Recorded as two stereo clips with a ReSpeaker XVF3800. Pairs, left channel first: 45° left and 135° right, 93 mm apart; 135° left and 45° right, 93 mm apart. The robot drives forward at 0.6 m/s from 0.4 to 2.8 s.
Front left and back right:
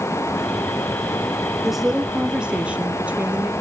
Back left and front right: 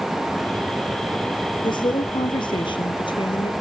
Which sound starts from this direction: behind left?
A woman speaking, at 1.6 s.